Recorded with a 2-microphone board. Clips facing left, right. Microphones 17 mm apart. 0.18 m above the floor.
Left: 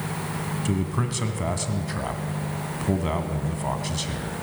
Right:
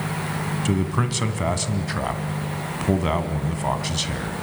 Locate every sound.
0.7 s a man speaking: 20° right (ahead or behind), 1.4 m